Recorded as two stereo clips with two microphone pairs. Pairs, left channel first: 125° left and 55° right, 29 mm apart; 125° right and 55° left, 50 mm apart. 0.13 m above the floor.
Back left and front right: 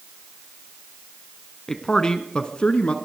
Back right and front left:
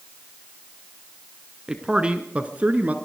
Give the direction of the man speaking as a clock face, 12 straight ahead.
9 o'clock.